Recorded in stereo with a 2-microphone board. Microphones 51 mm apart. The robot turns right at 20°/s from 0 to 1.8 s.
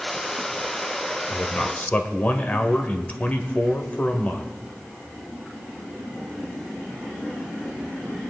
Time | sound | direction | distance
1.3 | a man speaking | 30° left (ahead or behind) | 1.1 m